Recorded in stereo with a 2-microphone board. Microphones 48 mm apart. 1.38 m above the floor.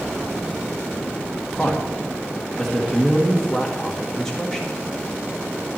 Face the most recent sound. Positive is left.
turn(degrees=10)  # may be behind; listen again after turning